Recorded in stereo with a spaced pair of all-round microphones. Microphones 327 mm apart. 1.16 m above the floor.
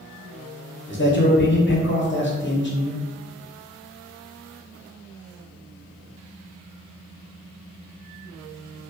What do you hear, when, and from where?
0.9 s a man speaking: 35° left (ahead or behind), 0.7 m